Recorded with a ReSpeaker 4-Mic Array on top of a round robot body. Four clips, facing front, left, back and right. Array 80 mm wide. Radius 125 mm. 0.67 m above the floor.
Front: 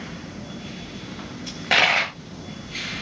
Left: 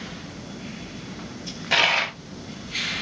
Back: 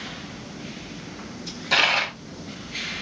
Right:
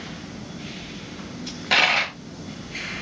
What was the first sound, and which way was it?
A dropped coin, 10° right.